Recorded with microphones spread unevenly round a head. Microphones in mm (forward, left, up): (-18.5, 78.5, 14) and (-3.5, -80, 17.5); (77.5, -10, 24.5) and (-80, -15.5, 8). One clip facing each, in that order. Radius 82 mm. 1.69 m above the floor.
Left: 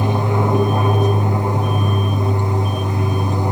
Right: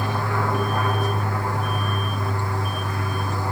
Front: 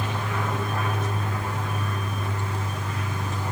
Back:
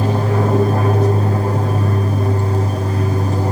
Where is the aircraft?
155° left.